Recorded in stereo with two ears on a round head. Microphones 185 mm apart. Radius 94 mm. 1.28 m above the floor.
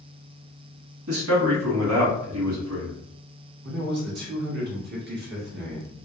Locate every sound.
1.1 s a man speaking: 85° right, 1.7 m
3.6 s a man speaking: 50° right (ahead or behind), 1.5 m